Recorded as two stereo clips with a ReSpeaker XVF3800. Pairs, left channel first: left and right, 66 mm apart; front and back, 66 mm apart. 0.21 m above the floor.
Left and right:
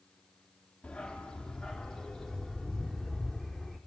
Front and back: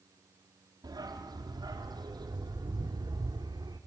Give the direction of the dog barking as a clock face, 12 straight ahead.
6 o'clock.